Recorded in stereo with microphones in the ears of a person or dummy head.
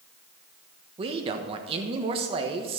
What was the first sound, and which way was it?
A man speaking, 35° right (ahead or behind).